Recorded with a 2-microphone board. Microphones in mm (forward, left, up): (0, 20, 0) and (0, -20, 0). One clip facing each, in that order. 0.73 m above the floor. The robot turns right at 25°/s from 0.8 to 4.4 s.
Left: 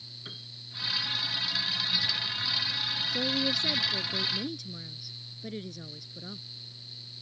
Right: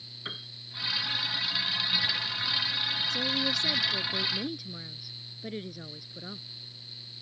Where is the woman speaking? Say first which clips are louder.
Left 3 dB; 165° left; by 6.5 s 165° right.